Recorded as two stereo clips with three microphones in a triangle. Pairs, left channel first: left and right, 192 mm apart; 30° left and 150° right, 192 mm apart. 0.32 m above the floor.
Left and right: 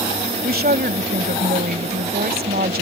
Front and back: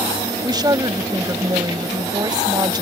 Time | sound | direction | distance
0.4 | a woman speaking | 85° right | ?